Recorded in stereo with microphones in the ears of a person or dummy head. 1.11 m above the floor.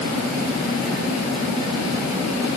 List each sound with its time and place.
Only background noise.